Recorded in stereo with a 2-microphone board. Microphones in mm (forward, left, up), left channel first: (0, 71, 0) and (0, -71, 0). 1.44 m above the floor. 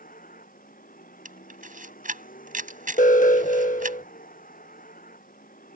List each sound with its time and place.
0.0 s a vehicle: 85° left
1.2 s a camera shutter: 75° right (ahead or behind)
3.0 s an alarm: 70° left (ahead or behind)